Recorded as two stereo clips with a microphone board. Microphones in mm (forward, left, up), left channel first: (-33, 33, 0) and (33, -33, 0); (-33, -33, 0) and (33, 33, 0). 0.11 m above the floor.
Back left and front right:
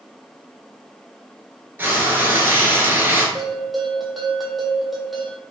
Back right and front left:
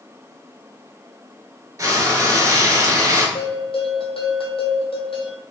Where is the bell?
135° right, 0.8 m.